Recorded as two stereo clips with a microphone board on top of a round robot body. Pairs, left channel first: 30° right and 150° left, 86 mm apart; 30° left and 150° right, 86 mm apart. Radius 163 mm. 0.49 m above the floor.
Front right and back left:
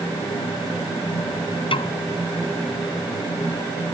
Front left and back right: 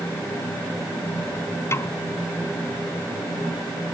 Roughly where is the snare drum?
Ahead right.